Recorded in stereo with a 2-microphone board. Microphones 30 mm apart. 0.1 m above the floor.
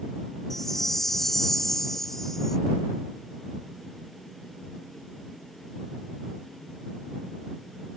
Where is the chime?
15° left (ahead or behind).